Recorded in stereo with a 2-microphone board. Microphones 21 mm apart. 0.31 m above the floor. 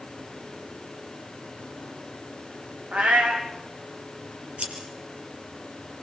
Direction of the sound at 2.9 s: 80° right.